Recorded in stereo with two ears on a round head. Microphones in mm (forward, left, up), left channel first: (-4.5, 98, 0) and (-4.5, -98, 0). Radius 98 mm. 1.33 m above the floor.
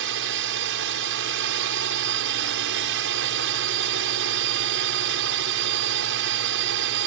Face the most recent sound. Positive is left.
turn(degrees=-60)  # may be behind; listen again after turning